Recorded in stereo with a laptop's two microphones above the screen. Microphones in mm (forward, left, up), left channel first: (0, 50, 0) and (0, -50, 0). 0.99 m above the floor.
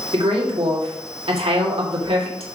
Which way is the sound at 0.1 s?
80° right.